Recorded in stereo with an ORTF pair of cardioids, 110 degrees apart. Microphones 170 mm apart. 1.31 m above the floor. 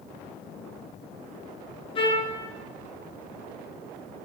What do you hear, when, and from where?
1.9 s a trumpet: 30° left, 0.7 m